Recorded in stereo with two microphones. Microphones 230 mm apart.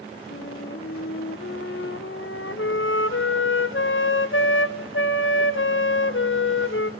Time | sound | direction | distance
0.3 | a flute | 60° left (ahead or behind) | 0.6 m